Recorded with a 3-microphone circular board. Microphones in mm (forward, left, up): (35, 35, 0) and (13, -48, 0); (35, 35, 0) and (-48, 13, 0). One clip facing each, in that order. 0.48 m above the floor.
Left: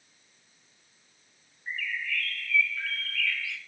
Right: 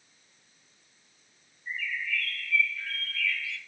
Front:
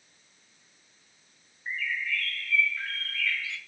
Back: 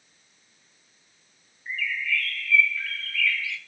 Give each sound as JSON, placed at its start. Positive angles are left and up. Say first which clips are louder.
{"t": 1.7, "sound": "a bird", "louder": "even, back 3 dB", "azimuth_deg": 70, "distance_m": 1.4}